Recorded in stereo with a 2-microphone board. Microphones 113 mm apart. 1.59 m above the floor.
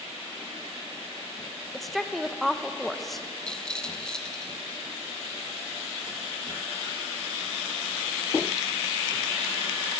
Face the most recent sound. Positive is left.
turn(degrees=5)  # may be behind; listen again after turning